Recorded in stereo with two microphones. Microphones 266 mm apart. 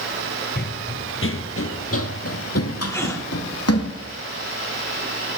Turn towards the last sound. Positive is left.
turn(degrees=10)  # may be behind; listen again after turning